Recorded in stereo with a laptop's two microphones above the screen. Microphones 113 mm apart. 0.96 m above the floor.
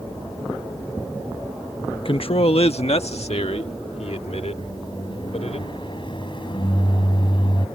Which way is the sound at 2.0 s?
50° left (ahead or behind).